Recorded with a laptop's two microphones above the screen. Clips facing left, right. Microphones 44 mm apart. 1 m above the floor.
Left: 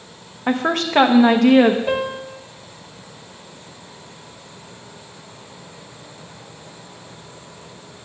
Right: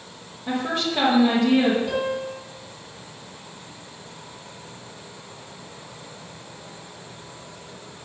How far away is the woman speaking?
About 1.0 m.